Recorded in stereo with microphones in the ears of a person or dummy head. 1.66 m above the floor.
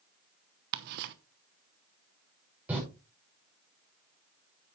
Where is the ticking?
55° right (ahead or behind), 1.0 m.